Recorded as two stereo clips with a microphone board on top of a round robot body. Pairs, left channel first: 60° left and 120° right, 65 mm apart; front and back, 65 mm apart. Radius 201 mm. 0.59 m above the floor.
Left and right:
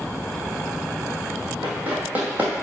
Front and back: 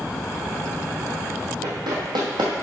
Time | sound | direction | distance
1.6 | running footsteps | 175° left | 1.3 m